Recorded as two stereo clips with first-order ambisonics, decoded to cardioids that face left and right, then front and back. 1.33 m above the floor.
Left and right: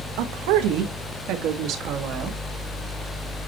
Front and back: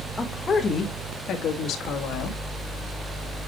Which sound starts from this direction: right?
A woman speaking, at 0.2 s.